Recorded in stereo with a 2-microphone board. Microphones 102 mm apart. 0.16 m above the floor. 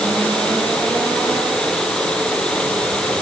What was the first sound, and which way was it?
Only background noise.